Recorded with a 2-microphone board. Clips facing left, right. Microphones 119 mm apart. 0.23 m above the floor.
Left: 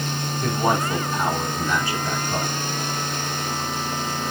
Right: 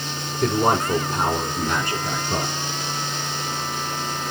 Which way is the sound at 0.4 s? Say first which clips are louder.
Right 3 dB; 55° right (ahead or behind).